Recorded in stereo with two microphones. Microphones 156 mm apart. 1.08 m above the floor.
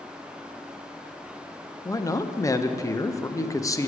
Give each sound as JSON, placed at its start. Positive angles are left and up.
{"t": 1.9, "sound": "a man speaking", "side_deg": 20, "distance_m": 0.5}